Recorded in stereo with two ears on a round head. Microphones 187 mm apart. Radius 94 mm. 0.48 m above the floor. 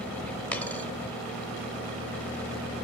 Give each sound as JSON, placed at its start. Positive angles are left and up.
{"t": 0.5, "sound": "a dropped coin", "side_deg": 10, "distance_m": 0.8}